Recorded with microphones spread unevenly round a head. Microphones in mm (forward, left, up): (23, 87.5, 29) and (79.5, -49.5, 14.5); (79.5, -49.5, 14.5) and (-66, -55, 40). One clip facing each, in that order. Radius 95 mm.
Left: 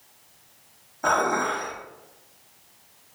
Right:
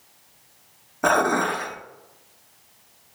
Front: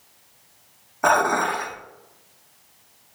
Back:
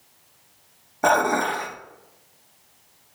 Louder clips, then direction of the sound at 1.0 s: Right 3 dB, even; 115° right.